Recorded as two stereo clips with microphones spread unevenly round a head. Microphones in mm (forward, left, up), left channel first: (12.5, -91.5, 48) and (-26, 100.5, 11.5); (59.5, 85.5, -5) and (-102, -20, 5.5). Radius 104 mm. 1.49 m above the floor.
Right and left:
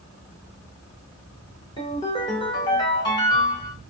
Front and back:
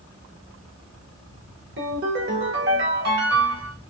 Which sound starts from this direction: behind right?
A ringtone, at 1.8 s.